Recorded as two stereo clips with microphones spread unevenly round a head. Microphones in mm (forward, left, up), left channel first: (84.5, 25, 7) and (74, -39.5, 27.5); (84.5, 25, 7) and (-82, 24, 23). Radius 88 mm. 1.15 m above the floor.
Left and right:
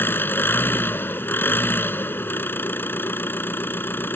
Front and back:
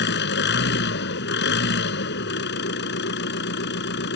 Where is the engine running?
20° left.